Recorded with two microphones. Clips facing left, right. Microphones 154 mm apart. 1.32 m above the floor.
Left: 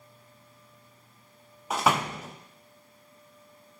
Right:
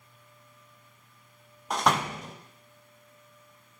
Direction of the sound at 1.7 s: 5° left (ahead or behind).